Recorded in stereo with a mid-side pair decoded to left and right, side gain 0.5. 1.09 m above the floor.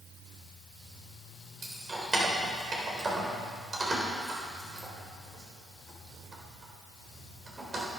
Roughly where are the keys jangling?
Ahead right.